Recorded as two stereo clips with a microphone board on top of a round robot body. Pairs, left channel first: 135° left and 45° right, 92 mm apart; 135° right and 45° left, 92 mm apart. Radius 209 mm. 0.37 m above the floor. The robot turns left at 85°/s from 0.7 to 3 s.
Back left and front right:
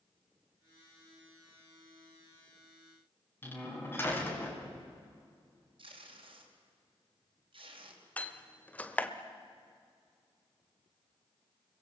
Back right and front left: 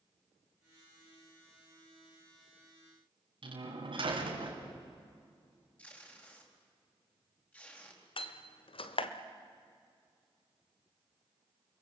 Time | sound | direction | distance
3.4 | a door slam | 70° left | 4.5 m
5.8 | tape being pulled | 65° right | 4 m
8.2 | a door slam | 150° right | 1.4 m